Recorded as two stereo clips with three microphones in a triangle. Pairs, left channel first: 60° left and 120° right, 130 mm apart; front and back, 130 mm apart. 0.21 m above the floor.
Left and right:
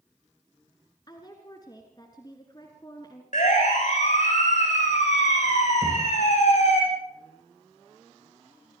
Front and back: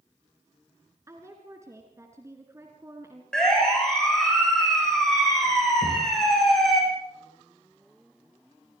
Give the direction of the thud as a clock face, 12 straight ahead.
11 o'clock.